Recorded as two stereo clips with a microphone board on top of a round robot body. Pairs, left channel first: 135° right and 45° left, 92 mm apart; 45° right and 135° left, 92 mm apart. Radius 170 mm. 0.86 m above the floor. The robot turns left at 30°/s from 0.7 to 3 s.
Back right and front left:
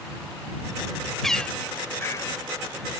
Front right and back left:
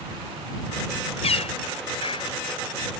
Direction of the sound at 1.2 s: 45° right.